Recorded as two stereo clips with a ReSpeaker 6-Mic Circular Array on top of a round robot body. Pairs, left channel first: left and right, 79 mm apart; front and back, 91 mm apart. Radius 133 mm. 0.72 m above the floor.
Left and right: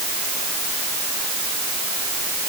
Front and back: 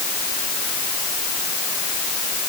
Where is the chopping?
I don't hear chopping.